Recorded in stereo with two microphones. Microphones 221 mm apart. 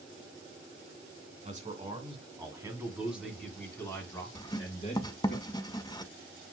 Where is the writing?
20° left (ahead or behind), 0.5 m.